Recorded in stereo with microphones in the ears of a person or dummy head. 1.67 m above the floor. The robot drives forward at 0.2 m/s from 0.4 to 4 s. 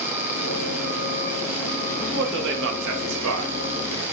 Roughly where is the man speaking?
Right.